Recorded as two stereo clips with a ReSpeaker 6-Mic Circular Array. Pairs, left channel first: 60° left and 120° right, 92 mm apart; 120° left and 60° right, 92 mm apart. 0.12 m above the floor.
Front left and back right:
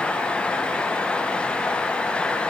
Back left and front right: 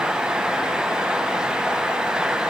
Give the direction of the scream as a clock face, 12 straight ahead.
I don't hear a scream.